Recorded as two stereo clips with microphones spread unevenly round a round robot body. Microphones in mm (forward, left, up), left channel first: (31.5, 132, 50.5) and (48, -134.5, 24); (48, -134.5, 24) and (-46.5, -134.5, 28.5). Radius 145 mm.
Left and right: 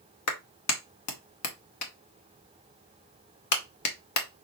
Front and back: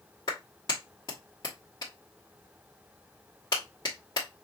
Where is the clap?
70° left, 1.3 m.